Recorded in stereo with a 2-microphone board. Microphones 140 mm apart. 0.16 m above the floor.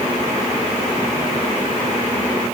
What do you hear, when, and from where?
Only background noise.